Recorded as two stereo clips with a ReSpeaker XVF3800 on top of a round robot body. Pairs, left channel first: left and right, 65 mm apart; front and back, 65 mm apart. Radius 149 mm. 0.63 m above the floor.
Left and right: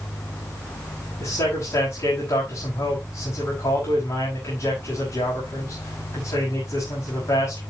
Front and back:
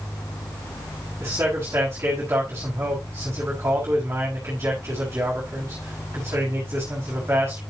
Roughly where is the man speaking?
Behind left.